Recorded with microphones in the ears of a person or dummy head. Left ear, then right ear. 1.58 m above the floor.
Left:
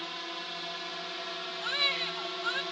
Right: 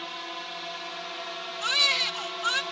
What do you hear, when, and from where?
0.0 s a drone: 20° right (ahead or behind); by 2.7 s 25° right (ahead or behind)
1.6 s a baby crying: 55° right (ahead or behind)